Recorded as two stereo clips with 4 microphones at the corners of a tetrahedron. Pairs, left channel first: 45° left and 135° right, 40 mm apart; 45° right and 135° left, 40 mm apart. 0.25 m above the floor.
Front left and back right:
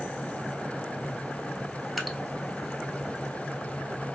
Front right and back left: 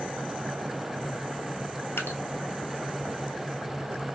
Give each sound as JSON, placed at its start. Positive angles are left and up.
{"t": 2.0, "sound": "dripping", "azimuth_deg": -45, "distance_m": 1.0}